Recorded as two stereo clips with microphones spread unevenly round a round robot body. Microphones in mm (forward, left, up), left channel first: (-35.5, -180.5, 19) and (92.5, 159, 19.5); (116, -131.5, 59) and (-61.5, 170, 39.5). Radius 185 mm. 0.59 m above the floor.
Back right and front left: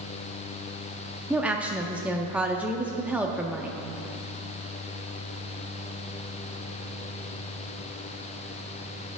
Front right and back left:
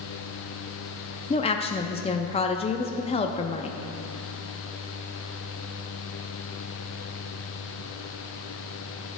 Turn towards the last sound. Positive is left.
turn(degrees=-10)